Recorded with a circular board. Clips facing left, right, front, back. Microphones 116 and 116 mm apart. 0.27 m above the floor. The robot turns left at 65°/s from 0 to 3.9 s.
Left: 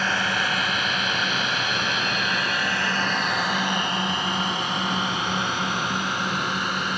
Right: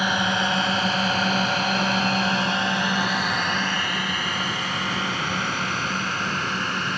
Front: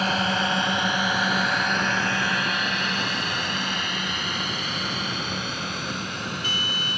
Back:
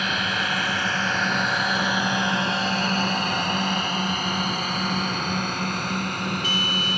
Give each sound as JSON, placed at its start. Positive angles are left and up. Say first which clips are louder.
{"t": 0.0, "sound": "a drone", "louder": "right 2 dB, front 3 dB", "azimuth_deg": -20}